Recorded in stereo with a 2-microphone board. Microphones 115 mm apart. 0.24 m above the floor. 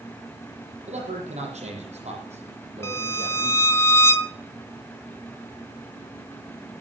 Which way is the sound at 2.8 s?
25° left (ahead or behind).